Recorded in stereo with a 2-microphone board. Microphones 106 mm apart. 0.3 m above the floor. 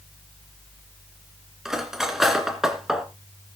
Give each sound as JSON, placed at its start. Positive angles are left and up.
{"t": 1.6, "sound": "cutlery clinking", "side_deg": -5, "distance_m": 2.5}